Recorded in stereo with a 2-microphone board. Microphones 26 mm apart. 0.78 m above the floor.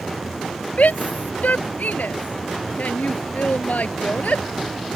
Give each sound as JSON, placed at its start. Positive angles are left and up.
{"t": 0.8, "sound": "a shout", "side_deg": 70}